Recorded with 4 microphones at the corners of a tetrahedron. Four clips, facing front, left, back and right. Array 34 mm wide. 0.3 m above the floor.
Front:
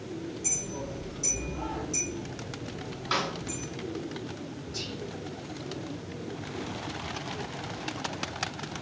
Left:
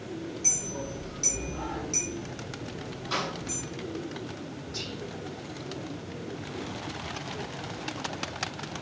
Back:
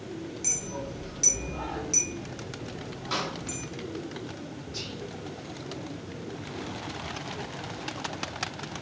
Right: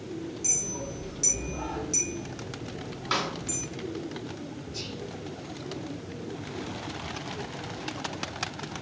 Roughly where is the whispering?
Behind left.